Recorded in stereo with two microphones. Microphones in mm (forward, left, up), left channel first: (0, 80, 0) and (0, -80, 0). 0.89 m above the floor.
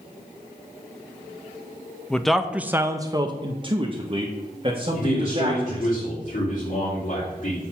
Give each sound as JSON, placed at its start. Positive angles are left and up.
{"t": 2.1, "sound": "a man speaking", "side_deg": 5, "distance_m": 0.6}
{"t": 4.9, "sound": "a man speaking", "side_deg": 50, "distance_m": 2.5}